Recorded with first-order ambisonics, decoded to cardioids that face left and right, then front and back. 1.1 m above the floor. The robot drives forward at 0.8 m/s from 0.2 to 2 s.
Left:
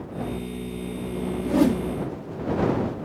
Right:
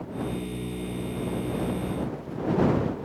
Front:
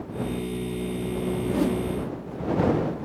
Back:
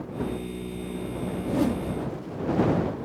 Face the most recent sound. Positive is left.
turn(degrees=100)